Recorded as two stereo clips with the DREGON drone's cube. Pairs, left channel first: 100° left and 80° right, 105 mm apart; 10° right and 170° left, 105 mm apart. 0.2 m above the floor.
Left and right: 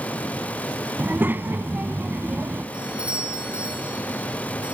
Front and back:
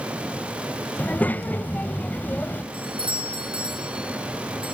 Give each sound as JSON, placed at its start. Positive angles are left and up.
{"t": 1.0, "sound": "a child speaking", "azimuth_deg": -55, "distance_m": 0.7}
{"t": 2.7, "sound": "a doorbell", "azimuth_deg": -160, "distance_m": 5.5}